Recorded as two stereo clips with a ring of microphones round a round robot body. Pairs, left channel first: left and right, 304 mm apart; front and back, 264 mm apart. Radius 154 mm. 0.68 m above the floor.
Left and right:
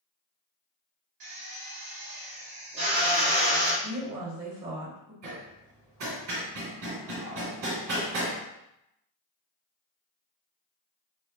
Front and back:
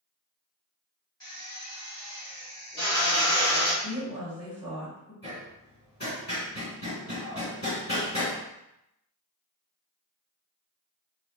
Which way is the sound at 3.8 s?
50° right.